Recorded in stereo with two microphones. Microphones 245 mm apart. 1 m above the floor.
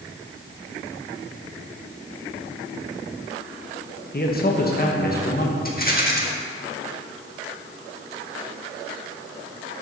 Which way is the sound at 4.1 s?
40° left (ahead or behind).